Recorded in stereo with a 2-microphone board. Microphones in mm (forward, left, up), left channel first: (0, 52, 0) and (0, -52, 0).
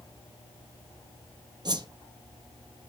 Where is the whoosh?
45° right (ahead or behind), 0.6 m.